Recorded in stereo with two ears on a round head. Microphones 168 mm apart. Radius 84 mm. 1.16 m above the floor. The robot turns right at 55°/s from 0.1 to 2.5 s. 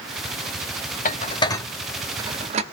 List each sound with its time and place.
1.1 s dishes clattering: 45° left (ahead or behind), 0.5 m; by 2.6 s 35° right (ahead or behind), 0.5 m